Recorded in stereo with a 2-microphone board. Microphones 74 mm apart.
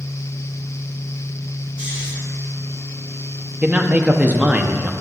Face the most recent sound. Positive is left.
turn(degrees=-20)  # may be behind; listen again after turning